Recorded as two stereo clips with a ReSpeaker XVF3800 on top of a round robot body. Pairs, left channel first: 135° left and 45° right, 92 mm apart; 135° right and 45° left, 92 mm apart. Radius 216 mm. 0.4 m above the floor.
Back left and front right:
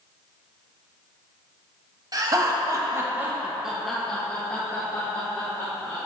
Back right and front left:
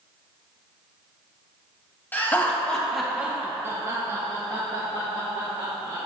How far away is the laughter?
About 1.7 m.